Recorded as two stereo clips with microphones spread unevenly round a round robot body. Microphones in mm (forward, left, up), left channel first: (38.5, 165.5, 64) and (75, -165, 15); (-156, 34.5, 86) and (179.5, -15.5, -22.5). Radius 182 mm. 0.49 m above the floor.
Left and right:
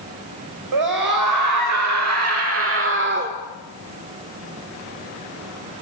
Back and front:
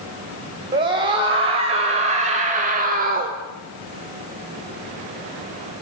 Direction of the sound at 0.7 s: 75° right.